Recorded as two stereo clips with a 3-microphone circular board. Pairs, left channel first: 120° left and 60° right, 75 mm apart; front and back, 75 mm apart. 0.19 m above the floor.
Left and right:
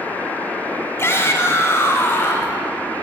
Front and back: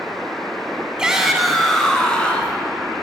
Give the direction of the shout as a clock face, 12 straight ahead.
8 o'clock.